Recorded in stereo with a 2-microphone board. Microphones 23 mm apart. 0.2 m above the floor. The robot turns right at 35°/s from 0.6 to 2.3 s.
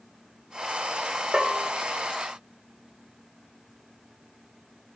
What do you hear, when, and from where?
1.3 s a bell: 40° right (ahead or behind), 0.9 m; by 1.7 s 50° right (ahead or behind), 0.9 m